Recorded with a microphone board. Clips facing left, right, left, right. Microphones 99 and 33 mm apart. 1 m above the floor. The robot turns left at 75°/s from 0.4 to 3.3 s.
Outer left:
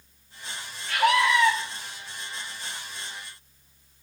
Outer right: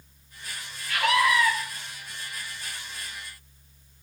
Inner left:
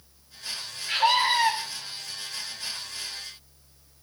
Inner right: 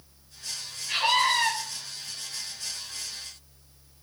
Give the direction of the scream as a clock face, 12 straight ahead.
8 o'clock.